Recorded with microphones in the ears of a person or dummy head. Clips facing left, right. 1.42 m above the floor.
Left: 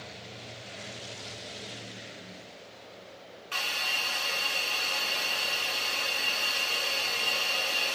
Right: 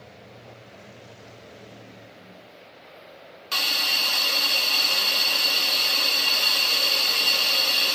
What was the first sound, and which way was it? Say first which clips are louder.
A hiss: right 5 dB; 55° right (ahead or behind).